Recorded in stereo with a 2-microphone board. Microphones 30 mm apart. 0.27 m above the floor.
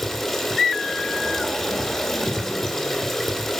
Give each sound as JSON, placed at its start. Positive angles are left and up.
{"t": 0.0, "sound": "running water", "side_deg": 10, "distance_m": 1.6}